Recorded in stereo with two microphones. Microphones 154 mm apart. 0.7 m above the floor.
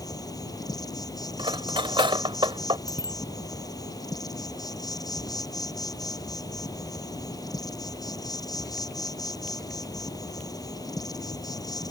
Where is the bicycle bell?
25° left (ahead or behind).